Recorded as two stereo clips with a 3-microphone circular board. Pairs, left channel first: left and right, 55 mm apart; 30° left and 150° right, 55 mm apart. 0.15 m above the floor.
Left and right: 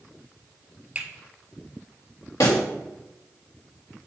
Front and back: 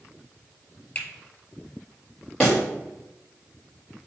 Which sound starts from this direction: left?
A pop, at 2.4 s.